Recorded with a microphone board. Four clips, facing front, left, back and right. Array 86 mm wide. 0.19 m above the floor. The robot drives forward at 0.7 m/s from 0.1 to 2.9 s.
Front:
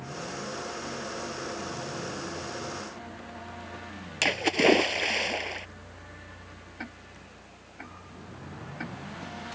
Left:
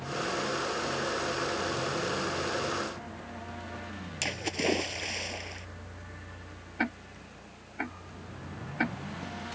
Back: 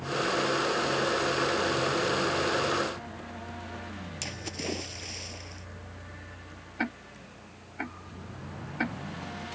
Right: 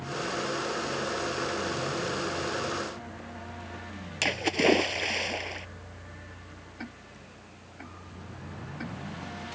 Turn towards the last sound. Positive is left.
turn(degrees=125)